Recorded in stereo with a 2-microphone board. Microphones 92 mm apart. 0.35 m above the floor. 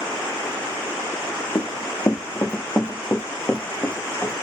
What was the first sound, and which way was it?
Running footsteps, 50° left (ahead or behind).